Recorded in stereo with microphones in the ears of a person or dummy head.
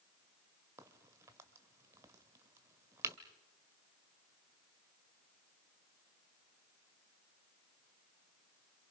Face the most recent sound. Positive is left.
turn(degrees=-20)  # may be behind; listen again after turning